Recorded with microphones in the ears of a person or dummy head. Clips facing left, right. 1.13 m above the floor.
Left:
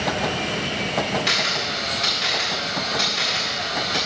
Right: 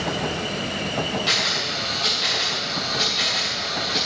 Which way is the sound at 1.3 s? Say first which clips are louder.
Left 1 dB; 30° left (ahead or behind).